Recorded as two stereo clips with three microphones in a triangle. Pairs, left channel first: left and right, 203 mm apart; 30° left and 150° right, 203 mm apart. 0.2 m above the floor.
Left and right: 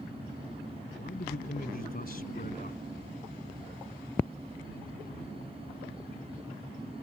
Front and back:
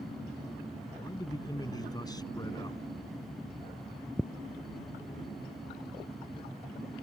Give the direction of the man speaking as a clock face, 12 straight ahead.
9 o'clock.